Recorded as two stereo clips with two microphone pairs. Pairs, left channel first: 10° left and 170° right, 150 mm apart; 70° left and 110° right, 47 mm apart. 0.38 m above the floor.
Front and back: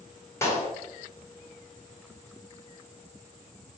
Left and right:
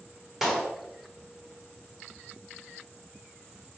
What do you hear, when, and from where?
0.4 s a clap: 35° right, 1.0 m